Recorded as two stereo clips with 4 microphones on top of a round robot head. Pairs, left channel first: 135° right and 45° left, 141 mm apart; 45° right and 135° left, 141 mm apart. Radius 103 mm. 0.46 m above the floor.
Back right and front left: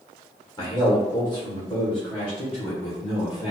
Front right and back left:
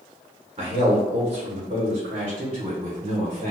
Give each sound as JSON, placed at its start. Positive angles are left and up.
{"t": 0.6, "sound": "a man speaking", "azimuth_deg": 175, "distance_m": 1.4}